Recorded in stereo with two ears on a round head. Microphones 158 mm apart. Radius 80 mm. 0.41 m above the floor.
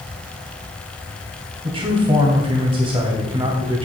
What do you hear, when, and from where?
1.6 s a man speaking: 30° right (ahead or behind), 2 m